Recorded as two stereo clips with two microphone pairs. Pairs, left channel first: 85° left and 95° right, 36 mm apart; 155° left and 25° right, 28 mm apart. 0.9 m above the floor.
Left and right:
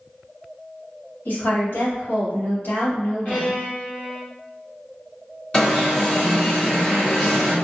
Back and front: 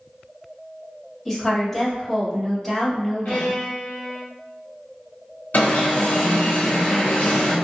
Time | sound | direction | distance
1.2 | a woman speaking | 75° left | 2.0 m
3.2 | a violin | 130° left | 1.4 m
5.5 | an alarm | 150° left | 1.3 m